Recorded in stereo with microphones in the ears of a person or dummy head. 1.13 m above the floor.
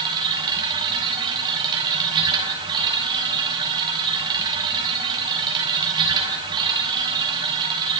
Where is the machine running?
25° right (ahead or behind), 6.5 m.